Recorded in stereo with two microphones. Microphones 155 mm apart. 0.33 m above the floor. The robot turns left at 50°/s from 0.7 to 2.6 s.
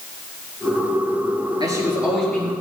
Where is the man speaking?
150° right, 5.5 m; by 2.5 s 160° left, 5.5 m.